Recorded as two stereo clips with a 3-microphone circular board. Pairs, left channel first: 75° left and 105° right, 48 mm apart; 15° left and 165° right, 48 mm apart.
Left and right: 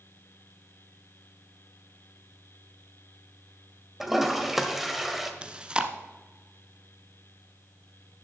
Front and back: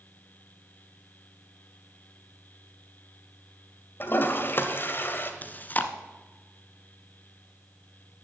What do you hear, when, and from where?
4.0 s a toilet flushing: 20° right, 1.2 m
5.4 s chewing: 35° right, 0.9 m